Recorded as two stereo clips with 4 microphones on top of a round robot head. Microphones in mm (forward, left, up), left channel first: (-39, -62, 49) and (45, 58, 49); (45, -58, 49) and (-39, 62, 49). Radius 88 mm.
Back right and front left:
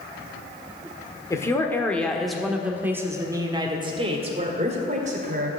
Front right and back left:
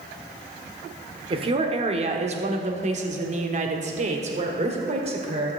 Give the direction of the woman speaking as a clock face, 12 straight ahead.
6 o'clock.